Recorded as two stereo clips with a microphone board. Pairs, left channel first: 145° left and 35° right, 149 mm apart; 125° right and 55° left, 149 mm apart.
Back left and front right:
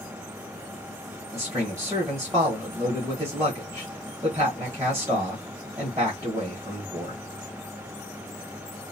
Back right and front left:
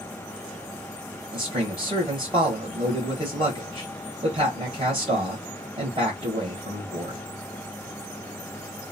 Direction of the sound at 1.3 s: 25° left.